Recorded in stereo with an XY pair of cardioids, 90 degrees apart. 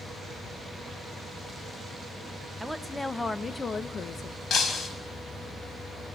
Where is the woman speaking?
10° right, 1.4 m; by 4.4 s 60° left, 1.5 m.